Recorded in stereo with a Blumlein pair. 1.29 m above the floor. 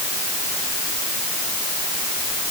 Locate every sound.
Only background noise.